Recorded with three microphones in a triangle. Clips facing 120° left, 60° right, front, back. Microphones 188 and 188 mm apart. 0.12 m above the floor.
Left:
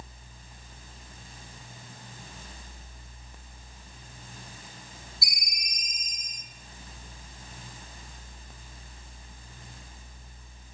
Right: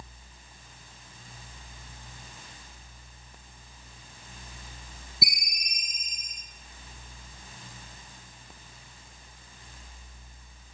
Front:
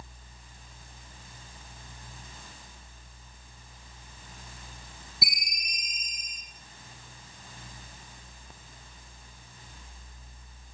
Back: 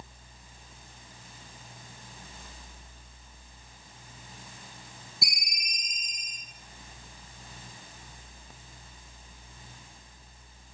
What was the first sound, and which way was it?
A ringtone, 85° right.